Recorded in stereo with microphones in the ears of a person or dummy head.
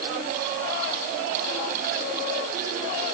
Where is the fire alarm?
No fire alarm in this recording.